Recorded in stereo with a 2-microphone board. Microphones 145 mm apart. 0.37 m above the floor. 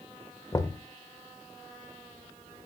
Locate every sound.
0.5 s knocking: 25° left (ahead or behind), 1.2 m